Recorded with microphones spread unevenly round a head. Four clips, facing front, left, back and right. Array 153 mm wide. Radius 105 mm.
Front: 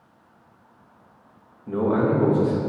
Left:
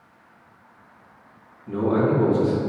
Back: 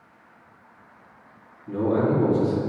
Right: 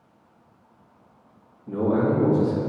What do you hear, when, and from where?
1.7 s a man speaking: 10° left, 2 m